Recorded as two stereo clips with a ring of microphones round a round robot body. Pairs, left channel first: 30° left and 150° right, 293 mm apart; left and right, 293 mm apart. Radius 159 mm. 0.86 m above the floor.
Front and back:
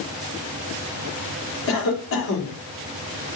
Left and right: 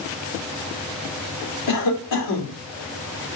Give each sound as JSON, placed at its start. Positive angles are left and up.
{"t": 1.7, "sound": "a cough", "azimuth_deg": 75, "distance_m": 3.0}